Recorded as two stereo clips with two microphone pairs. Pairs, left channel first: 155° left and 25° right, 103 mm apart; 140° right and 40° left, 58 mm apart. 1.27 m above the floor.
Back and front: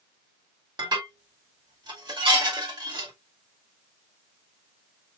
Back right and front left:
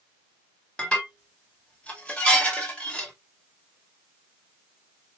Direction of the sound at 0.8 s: 70° right.